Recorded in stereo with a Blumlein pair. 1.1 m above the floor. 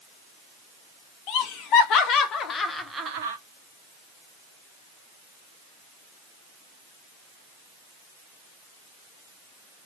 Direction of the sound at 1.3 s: 40° left.